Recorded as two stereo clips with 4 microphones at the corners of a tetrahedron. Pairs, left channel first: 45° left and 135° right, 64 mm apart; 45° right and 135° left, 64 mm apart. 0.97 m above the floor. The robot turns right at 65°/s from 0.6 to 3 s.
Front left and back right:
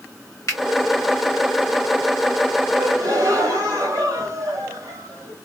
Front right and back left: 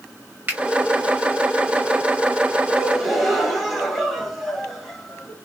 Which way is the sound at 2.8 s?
145° right.